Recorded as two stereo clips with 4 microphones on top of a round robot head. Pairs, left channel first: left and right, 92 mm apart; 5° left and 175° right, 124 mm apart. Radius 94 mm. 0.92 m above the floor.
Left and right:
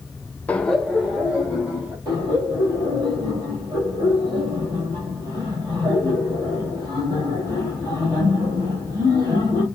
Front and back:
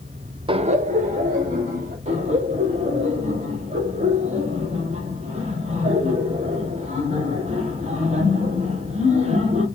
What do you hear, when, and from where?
0.5 s laughter: 155° left, 0.5 m; by 1.9 s 175° right, 2.5 m
2.0 s laughter: 140° right, 2 m